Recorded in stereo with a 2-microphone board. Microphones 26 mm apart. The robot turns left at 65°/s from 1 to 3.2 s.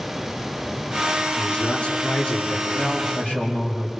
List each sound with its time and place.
1.4 s a man speaking: 150° left, 4.5 m; by 2.6 s 70° left, 4.5 m
2.7 s a man speaking: 75° left, 8 m; by 3.9 s 45° left, 8 m